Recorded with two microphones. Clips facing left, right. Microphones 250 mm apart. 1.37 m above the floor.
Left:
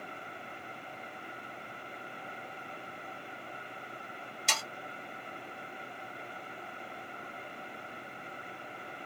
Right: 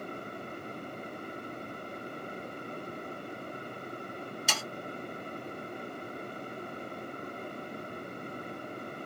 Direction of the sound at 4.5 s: 5° right (ahead or behind).